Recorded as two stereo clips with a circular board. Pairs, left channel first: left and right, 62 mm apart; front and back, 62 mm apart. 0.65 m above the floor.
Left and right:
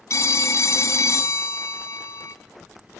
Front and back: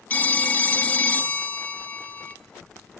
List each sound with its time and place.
0.1 s a phone ringing: 60° left, 0.6 m